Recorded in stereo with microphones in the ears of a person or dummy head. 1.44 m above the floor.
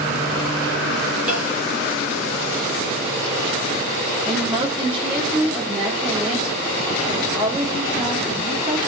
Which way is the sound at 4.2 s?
10° right (ahead or behind).